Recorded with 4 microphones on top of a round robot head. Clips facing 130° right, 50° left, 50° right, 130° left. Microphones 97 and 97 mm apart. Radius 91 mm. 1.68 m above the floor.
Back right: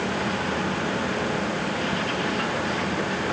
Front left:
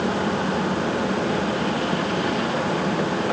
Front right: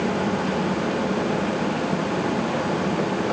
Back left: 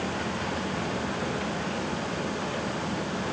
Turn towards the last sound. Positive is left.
No sound to turn to.